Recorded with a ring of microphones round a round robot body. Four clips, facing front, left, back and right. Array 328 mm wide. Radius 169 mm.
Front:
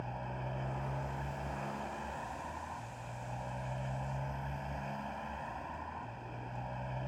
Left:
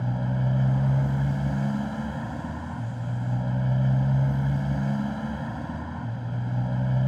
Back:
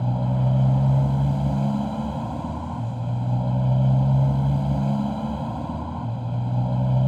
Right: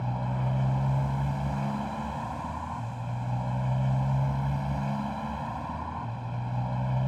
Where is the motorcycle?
155° left.